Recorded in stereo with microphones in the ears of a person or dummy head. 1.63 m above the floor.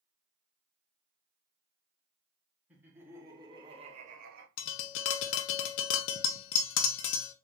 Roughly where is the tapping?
Left.